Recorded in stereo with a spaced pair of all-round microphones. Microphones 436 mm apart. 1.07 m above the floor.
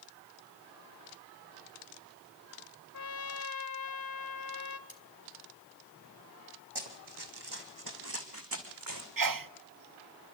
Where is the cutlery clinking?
55° left (ahead or behind), 2 m.